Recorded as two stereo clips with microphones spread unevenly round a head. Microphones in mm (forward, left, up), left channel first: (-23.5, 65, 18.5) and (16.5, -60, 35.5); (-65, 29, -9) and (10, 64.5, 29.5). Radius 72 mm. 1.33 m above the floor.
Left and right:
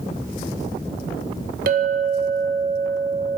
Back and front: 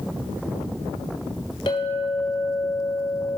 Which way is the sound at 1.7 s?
95° right.